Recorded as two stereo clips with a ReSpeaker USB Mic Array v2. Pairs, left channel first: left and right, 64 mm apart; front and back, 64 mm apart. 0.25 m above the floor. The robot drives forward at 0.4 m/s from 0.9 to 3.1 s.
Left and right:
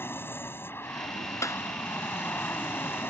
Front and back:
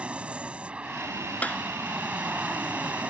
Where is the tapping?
65° left.